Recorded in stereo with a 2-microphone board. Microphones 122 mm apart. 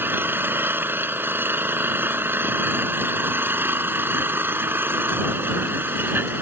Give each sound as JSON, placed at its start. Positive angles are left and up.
{"t": 0.0, "sound": "an engine running", "side_deg": -15}